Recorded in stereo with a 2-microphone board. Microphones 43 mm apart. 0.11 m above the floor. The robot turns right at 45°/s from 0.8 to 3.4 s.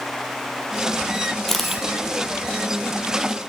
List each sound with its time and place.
1.5 s a camera shutter: 5° left (ahead or behind), 1.1 m; by 1.8 s 10° right (ahead or behind), 1.1 m